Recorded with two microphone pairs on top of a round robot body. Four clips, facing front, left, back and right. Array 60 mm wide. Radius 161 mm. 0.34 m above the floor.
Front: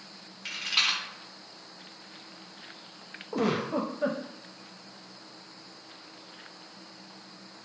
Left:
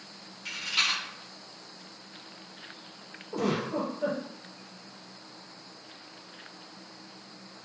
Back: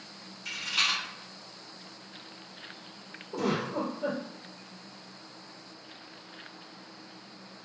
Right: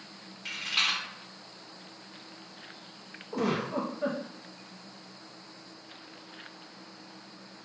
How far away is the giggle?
About 0.5 m.